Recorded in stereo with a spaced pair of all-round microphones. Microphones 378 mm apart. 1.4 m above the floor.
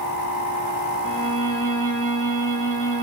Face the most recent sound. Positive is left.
turn(degrees=35)  # may be behind; listen again after turning